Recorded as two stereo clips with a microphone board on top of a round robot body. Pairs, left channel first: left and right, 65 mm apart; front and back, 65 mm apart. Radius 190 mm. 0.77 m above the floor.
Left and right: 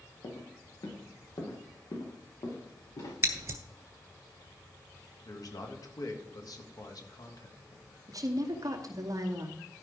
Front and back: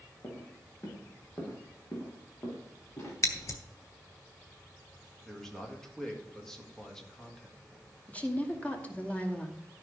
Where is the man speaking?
80° left, 2 m.